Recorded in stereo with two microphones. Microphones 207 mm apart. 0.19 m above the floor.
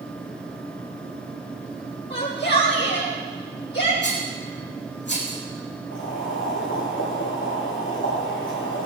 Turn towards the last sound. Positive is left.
turn(degrees=70)  # may be behind; listen again after turning